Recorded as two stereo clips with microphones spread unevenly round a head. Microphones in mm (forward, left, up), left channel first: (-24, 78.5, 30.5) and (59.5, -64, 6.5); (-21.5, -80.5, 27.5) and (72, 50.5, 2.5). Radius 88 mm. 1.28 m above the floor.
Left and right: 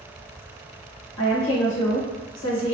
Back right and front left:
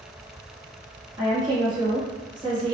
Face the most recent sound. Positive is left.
turn(degrees=120)